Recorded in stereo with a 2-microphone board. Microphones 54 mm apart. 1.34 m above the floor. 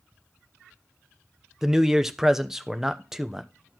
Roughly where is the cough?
No cough in this recording.